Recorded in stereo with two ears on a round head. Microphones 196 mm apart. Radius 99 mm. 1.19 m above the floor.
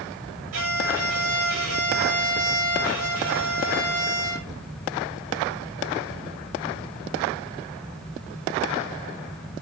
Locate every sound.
0.5 s a violin: 75° right (ahead or behind), 7 m